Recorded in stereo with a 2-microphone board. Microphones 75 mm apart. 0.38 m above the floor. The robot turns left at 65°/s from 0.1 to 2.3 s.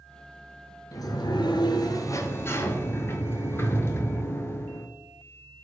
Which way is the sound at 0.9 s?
125° left.